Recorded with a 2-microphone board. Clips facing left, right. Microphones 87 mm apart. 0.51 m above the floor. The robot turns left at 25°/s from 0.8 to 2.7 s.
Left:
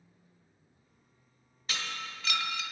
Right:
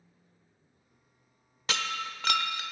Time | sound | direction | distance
1.7 | breaking glass | 65° right (ahead or behind) | 0.9 m